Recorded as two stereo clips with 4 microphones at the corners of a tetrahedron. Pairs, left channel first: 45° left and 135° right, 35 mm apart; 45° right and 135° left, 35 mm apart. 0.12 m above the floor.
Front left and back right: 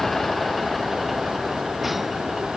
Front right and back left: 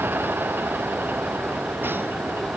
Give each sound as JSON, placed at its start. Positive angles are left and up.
{"t": 0.0, "sound": "a vehicle", "azimuth_deg": 125}